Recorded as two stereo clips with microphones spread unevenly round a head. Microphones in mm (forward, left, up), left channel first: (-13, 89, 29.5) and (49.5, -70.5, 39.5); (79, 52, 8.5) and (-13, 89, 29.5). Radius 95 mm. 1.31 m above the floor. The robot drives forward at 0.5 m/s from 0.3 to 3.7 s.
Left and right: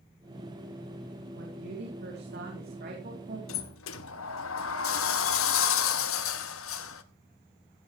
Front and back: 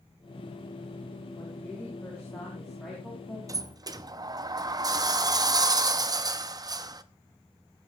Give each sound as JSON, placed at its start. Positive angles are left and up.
{"t": 1.4, "sound": "a woman speaking", "azimuth_deg": -95, "distance_m": 3.5}
{"t": 3.5, "sound": "a sliding door", "azimuth_deg": 115, "distance_m": 1.0}